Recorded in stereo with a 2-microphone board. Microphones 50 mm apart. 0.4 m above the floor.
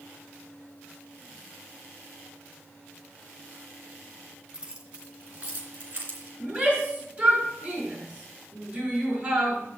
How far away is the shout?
About 4.5 m.